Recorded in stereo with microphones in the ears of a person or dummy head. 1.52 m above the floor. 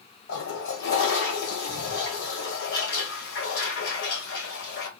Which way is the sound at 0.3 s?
65° left (ahead or behind).